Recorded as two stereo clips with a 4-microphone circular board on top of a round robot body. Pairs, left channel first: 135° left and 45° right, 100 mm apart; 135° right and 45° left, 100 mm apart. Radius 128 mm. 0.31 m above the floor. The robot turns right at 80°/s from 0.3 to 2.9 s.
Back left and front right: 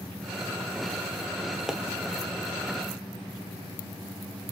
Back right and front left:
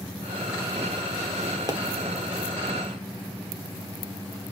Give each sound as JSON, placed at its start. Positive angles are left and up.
{"t": 1.7, "sound": "a pop", "azimuth_deg": 35, "distance_m": 1.6}